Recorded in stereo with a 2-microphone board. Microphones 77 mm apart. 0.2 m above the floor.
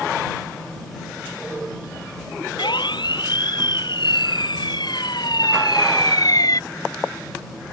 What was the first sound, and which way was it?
A siren, 75° left (ahead or behind).